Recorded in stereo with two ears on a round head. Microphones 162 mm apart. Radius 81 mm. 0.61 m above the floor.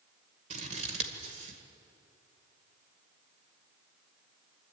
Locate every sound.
0.5 s scissors: 40° right (ahead or behind), 2 m